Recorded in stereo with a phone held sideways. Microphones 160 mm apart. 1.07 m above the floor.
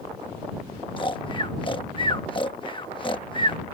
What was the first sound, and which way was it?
Snoring, 30° left (ahead or behind).